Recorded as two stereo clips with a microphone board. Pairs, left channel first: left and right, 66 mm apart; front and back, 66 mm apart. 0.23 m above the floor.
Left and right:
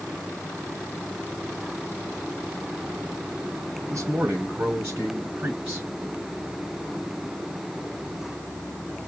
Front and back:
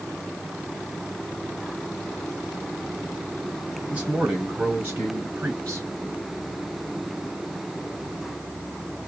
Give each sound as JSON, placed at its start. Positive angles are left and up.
{"t": 3.9, "sound": "a man speaking", "azimuth_deg": -120, "distance_m": 2.5}